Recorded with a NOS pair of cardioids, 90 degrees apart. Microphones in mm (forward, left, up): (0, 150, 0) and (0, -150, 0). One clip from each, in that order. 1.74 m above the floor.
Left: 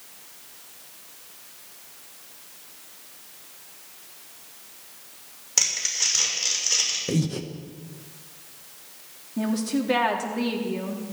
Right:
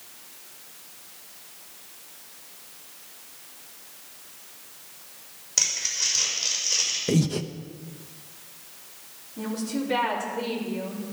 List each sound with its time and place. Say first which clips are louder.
5.6 s crumpling: left 1 dB; 30° left, 6 m
7.1 s breathing: right 2 dB; 15° right, 0.9 m
9.4 s a woman speaking: left 4 dB; 65° left, 3.5 m